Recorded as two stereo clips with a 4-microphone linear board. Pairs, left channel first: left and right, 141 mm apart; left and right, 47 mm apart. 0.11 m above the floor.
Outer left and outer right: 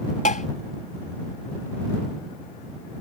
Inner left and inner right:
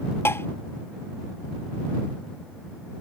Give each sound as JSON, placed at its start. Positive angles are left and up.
{"t": 0.2, "sound": "tapping", "side_deg": 65}